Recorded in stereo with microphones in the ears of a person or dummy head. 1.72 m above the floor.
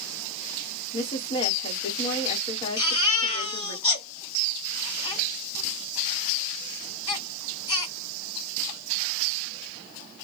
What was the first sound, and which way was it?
A woman speaking, 30° left (ahead or behind).